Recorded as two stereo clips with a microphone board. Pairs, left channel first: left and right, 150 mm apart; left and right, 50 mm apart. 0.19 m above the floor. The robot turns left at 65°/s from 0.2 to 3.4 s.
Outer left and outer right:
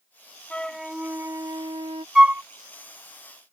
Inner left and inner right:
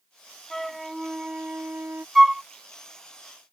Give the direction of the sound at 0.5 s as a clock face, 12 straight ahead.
11 o'clock.